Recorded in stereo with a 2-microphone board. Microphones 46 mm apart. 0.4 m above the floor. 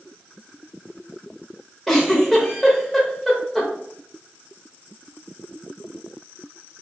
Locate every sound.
1.9 s a giggle: centre (ahead or behind), 0.8 m